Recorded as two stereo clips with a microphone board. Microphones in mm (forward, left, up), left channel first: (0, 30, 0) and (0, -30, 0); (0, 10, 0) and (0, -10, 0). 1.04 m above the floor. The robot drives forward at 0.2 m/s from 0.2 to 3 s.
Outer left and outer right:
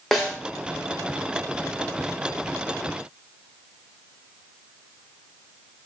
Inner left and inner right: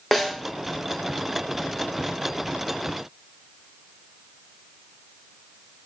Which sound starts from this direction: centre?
A snare drum, at 0.1 s.